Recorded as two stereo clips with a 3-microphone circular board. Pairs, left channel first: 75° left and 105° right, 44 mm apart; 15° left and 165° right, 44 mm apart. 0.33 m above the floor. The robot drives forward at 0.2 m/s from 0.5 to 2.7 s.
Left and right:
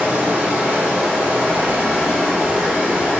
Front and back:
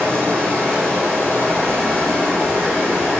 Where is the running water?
150° right, 1.2 m; by 3.2 s 155° right, 1.6 m.